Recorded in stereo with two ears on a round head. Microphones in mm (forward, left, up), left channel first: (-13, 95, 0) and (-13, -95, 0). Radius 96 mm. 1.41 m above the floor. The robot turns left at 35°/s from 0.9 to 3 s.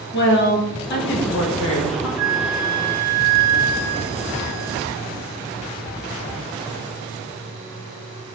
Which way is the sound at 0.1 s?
125° left.